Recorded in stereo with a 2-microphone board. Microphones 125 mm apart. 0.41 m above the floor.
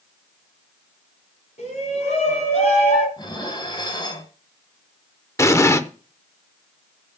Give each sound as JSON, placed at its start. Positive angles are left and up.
{"t": 1.6, "sound": "a shout", "side_deg": 70, "distance_m": 3.5}
{"t": 3.2, "sound": "dishes clattering", "side_deg": 40, "distance_m": 1.8}
{"t": 5.4, "sound": "an explosion", "side_deg": 20, "distance_m": 0.7}